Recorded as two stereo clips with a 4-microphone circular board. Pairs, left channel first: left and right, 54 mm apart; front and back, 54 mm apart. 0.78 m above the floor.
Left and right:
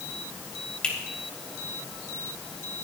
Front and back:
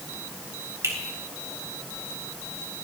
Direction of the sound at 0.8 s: 160° left.